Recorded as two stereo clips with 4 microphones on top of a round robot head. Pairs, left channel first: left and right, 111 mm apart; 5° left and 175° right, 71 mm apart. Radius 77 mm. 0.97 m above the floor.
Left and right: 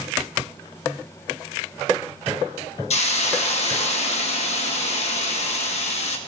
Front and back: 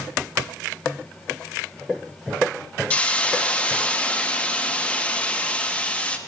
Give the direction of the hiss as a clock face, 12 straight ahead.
10 o'clock.